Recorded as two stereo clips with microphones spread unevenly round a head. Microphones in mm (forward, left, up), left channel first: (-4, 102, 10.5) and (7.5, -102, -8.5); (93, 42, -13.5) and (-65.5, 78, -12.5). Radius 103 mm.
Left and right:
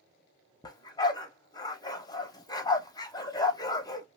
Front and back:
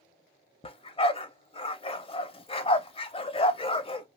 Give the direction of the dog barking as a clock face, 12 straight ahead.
11 o'clock.